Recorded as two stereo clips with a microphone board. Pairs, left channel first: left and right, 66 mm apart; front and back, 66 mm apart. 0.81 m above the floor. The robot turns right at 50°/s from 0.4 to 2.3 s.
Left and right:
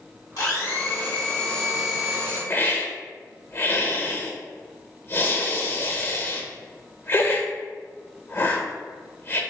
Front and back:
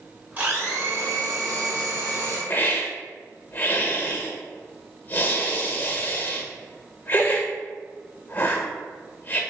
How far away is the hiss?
About 0.6 m.